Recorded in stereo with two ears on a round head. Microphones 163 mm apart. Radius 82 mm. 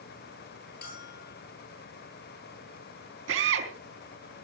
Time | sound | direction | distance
0.8 | a bell | 55° left (ahead or behind) | 9.5 m
3.3 | a drill | 75° right (ahead or behind) | 4 m